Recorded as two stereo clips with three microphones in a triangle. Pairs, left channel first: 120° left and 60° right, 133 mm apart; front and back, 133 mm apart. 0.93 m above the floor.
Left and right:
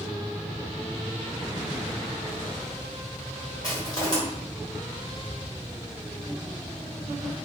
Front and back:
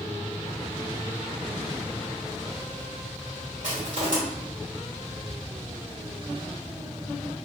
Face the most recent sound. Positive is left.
turn(degrees=180)